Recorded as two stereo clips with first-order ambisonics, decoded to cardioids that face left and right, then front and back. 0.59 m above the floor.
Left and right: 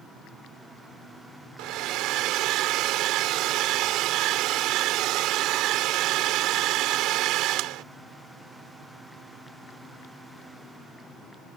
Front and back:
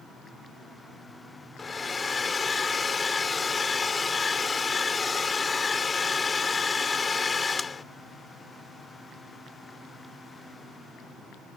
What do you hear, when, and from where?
1.6 s a hair dryer: 70° right